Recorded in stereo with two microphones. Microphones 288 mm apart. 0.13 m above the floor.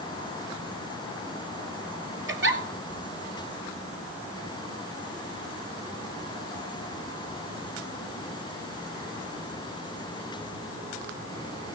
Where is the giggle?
45° right (ahead or behind), 1.2 m.